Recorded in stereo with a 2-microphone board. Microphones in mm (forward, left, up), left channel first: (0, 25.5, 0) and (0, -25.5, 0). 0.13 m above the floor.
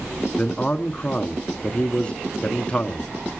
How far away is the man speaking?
About 1.1 m.